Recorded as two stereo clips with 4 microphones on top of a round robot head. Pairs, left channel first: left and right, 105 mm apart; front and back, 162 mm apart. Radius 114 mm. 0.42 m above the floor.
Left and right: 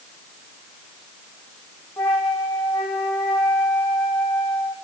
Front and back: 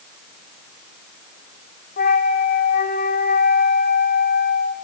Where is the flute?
5° left, 3.5 m.